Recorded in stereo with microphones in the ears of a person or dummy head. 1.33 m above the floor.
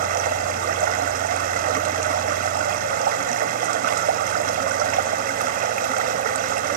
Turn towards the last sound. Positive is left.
turn(degrees=-55)  # may be behind; listen again after turning